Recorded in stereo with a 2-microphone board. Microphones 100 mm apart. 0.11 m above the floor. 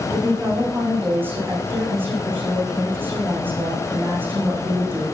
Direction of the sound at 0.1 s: 20° right (ahead or behind).